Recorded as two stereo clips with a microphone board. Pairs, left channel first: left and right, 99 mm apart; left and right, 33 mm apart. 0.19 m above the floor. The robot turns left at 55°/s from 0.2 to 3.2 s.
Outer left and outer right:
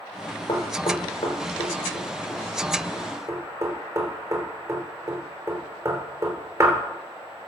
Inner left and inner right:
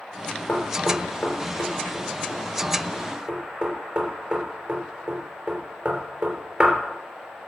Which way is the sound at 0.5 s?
55° left (ahead or behind).